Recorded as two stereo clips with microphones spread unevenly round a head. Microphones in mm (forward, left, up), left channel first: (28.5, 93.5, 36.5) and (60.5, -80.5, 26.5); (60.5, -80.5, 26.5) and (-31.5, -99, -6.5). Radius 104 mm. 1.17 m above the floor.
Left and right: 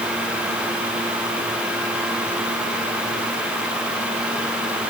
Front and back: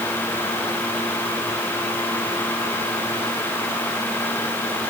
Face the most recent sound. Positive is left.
No sound to turn to.